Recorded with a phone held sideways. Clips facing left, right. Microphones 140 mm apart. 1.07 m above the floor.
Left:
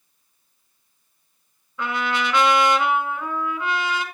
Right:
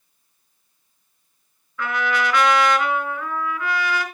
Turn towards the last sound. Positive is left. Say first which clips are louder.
# right 2 dB
turn(degrees=25)  # may be behind; listen again after turning